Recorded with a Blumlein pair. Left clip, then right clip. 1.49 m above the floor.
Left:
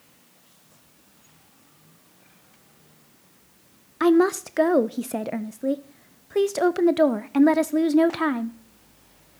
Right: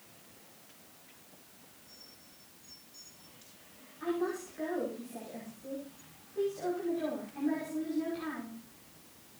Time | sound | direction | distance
4.0 | a woman speaking | 45° left | 0.6 m